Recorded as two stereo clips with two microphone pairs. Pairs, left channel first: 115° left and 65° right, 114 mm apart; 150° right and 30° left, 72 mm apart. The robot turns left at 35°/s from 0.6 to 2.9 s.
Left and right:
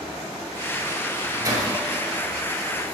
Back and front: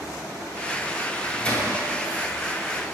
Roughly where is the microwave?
Right.